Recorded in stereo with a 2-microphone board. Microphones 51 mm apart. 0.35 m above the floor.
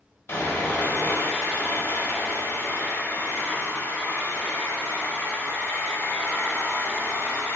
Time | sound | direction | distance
0.3 | sawing | 55° left (ahead or behind) | 1.6 m